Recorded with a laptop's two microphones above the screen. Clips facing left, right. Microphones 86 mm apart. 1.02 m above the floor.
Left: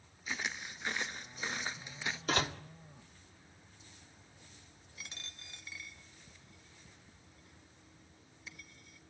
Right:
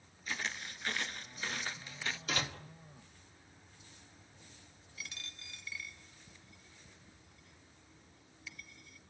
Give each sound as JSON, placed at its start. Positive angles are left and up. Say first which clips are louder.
{"t": 0.3, "sound": "footsteps", "louder": "even", "side_deg": 10, "distance_m": 1.1}
{"t": 2.3, "sound": "a door slam", "louder": "left 6 dB", "side_deg": 40, "distance_m": 1.8}
{"t": 5.0, "sound": "a dropped coin", "louder": "right 2 dB", "side_deg": 30, "distance_m": 1.8}